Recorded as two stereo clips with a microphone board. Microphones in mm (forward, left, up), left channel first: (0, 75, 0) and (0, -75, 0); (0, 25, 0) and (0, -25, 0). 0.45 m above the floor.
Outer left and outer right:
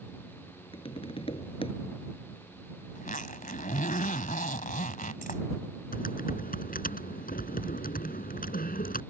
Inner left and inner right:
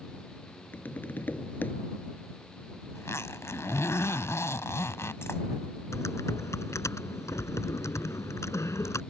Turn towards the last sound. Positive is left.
turn(degrees=70)  # may be behind; listen again after turning